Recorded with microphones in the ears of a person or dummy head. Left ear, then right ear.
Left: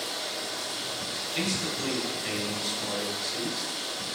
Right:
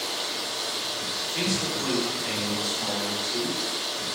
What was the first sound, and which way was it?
Running water, 35° right (ahead or behind).